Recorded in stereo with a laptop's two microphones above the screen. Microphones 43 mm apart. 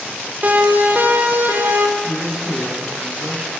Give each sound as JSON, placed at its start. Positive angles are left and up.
{"t": 0.4, "sound": "a siren", "side_deg": -45, "distance_m": 4.0}
{"t": 2.0, "sound": "a man speaking", "side_deg": -10, "distance_m": 9.0}